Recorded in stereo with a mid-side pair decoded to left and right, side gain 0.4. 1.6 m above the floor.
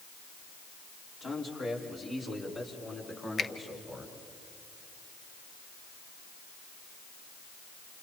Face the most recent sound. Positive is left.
turn(degrees=45)